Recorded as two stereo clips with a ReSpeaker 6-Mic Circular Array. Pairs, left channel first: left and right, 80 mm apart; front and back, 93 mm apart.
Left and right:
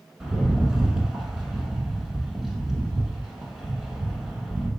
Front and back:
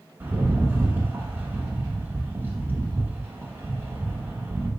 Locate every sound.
0.2 s a rattle: 160° right, 0.9 m